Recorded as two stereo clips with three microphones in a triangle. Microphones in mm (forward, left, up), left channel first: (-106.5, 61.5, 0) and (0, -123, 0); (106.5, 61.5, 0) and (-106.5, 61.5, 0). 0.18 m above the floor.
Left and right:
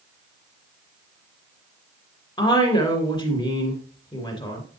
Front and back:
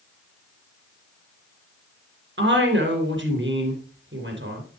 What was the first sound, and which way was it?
A woman speaking, 175° right.